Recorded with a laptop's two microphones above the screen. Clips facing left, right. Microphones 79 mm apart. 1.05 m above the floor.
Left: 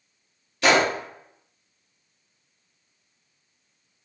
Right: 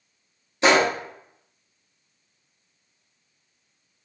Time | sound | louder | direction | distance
0.6 | a gunshot | right 1 dB | 25° right (ahead or behind) | 0.6 m